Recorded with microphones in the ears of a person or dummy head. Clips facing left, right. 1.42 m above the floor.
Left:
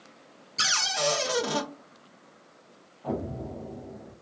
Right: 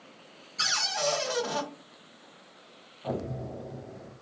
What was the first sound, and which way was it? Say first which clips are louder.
A cupboard door: left 2 dB; 50° left (ahead or behind).